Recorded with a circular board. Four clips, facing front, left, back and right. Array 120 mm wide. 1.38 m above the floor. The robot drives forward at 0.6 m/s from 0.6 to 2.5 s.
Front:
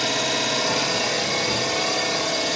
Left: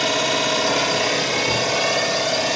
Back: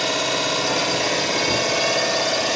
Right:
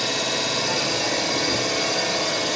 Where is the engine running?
100° left, 1.3 m; by 2.6 s 145° left, 1.8 m.